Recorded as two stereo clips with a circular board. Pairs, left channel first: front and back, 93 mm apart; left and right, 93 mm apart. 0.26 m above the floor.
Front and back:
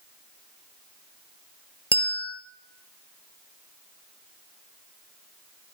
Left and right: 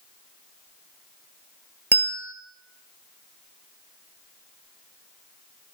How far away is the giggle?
I don't hear a giggle.